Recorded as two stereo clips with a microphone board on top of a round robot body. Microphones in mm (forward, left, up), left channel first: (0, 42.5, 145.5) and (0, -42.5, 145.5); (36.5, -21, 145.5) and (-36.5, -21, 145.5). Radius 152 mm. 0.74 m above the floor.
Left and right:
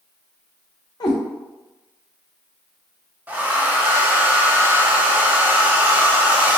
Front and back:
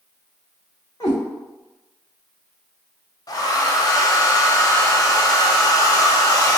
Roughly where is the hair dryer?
Ahead right.